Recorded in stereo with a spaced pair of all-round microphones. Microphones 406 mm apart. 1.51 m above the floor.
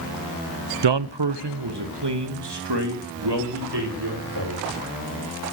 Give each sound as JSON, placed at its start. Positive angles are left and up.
{"t": 0.8, "sound": "a man speaking", "side_deg": -85, "distance_m": 0.6}